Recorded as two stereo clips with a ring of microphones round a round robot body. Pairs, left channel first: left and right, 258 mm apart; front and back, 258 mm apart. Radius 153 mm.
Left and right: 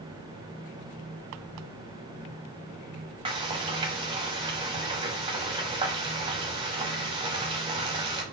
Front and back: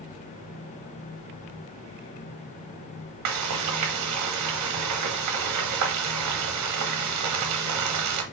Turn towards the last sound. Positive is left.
turn(degrees=-165)